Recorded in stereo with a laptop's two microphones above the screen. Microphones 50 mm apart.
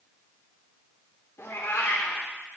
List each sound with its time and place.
1.4 s a cat meowing: 80° left, 1.5 m